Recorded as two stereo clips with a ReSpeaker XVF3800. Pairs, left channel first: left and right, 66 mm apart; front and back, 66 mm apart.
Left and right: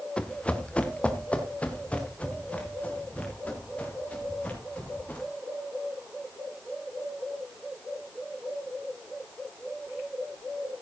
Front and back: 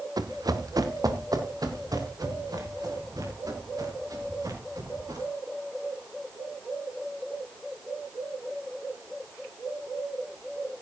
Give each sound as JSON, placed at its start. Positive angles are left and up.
{"t": 0.2, "sound": "running footsteps", "azimuth_deg": 165, "distance_m": 1.5}